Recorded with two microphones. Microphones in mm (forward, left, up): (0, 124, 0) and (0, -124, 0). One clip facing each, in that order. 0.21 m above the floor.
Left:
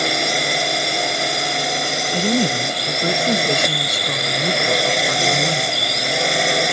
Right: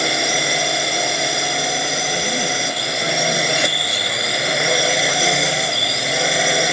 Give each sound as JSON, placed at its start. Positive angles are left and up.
{"t": 0.0, "sound": "a drone", "side_deg": 0}
{"t": 2.1, "sound": "a woman speaking", "side_deg": 45}